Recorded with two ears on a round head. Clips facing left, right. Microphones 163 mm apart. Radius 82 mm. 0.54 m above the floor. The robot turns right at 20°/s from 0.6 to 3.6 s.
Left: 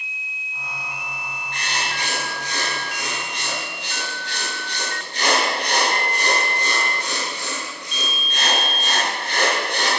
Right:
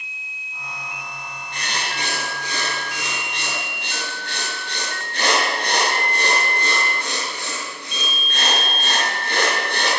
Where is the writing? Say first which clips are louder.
Even; 90° right, 8.5 m; by 9.9 s 45° right, 8.5 m.